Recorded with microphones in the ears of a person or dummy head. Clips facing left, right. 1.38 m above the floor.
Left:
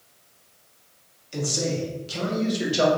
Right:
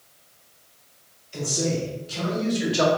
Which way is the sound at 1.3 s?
75° left (ahead or behind).